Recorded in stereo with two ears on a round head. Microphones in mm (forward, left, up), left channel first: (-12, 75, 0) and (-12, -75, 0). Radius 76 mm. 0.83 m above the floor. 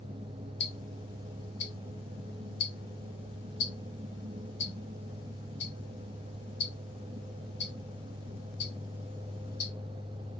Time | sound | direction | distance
0.6 | ticking | 75° left (ahead or behind) | 1.2 m